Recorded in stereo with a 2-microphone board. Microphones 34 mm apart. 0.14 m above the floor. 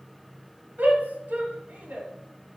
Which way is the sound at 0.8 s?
55° right (ahead or behind).